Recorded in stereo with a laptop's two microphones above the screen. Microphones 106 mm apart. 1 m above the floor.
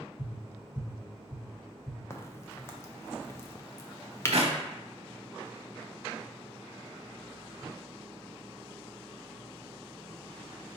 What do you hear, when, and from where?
0.2 s tapping: 40° left (ahead or behind), 1.1 m
2.1 s a crack: 25° left (ahead or behind), 0.6 m
4.3 s a clap: 70° right (ahead or behind), 0.9 m